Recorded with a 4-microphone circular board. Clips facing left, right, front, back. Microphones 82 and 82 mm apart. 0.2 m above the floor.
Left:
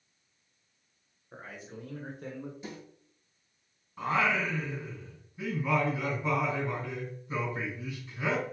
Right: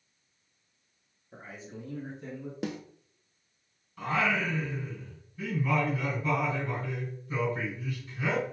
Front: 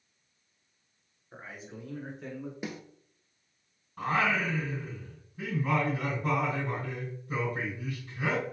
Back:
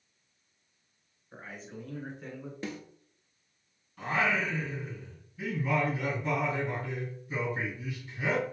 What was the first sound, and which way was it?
A man speaking, 80° left.